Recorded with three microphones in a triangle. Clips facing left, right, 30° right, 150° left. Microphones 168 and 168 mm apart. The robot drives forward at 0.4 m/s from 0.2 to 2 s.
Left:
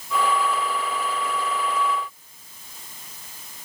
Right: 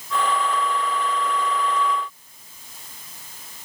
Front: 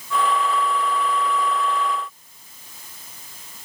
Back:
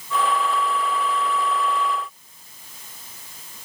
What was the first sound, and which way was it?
Only background noise.